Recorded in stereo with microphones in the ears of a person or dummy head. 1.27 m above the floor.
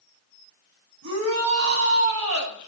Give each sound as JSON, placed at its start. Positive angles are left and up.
{"t": 1.0, "sound": "a shout", "side_deg": -85, "distance_m": 8.0}